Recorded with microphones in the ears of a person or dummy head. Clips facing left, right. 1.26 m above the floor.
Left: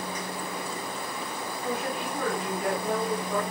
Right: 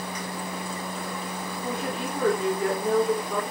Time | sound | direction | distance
1.6 | a woman speaking | 30° right (ahead or behind) | 3.5 m